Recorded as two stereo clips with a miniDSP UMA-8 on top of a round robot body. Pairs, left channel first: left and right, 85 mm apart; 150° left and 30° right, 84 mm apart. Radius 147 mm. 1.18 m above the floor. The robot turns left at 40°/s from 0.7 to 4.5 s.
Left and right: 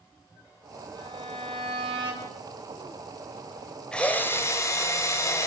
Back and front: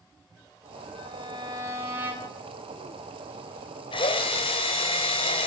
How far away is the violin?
About 9 m.